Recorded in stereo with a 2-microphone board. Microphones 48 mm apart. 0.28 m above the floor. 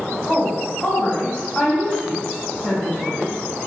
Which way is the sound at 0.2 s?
30° left (ahead or behind).